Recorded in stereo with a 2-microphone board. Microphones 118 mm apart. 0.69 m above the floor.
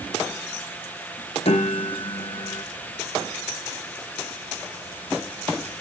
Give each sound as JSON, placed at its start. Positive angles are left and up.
{"t": 1.4, "sound": "a piano", "side_deg": 55, "distance_m": 0.6}